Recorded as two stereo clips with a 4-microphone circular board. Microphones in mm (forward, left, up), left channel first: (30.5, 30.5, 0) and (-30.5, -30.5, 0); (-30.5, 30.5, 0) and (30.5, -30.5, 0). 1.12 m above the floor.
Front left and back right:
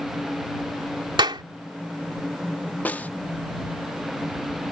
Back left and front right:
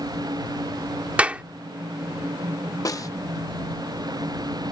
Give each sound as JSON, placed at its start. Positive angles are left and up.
{"t": 1.2, "sound": "a clap", "azimuth_deg": -120}
{"t": 2.9, "sound": "a snare drum", "azimuth_deg": 110}